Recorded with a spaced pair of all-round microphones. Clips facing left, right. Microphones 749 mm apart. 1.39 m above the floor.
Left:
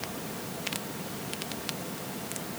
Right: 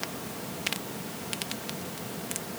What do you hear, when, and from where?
Only background noise.